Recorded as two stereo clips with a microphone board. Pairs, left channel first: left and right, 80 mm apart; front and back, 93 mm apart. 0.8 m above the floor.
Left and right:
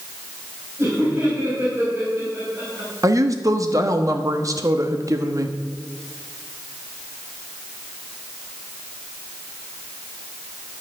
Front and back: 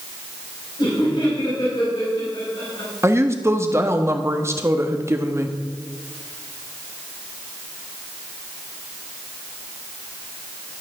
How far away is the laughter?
About 4.5 m.